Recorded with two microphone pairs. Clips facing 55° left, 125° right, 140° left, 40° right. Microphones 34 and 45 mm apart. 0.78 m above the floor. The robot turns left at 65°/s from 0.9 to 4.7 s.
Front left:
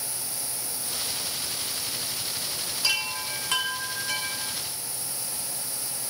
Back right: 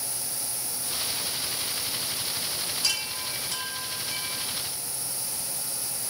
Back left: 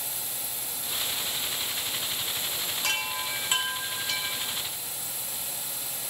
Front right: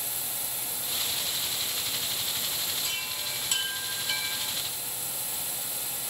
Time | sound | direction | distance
2.8 | a chime | 130° left | 0.6 m